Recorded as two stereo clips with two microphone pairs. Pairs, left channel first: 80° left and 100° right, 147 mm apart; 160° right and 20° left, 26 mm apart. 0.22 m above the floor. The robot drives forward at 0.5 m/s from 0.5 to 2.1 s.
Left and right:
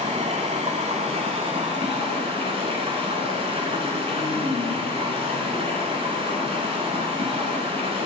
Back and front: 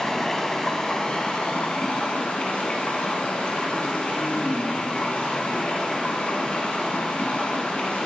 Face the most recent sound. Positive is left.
turn(degrees=-145)